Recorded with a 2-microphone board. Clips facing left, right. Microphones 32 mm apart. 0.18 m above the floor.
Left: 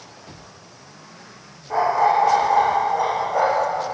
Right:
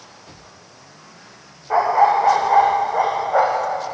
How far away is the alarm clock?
I don't hear an alarm clock.